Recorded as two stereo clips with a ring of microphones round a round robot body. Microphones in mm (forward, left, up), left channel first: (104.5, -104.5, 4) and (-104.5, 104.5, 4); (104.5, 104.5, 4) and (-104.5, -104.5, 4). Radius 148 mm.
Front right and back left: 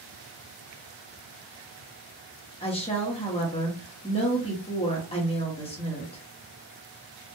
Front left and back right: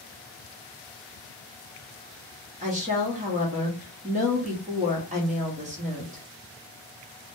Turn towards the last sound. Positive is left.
turn(degrees=-95)